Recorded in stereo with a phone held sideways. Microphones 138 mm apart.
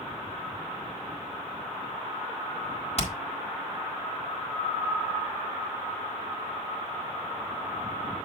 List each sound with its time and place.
3.0 s hammering: 50° left (ahead or behind), 1.5 m